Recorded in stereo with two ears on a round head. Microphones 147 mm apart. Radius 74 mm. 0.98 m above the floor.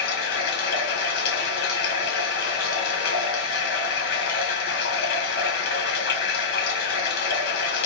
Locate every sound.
0.0 s running water: 65° left (ahead or behind), 1.4 m